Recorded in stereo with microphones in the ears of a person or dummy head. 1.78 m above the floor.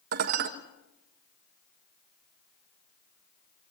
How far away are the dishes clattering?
About 1.3 m.